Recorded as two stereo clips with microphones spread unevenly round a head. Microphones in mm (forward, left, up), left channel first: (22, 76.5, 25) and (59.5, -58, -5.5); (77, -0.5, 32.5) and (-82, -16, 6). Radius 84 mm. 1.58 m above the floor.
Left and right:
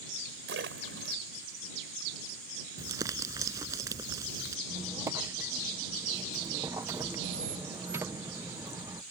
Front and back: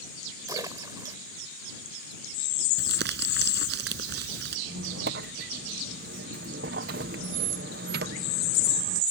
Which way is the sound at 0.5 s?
105° right.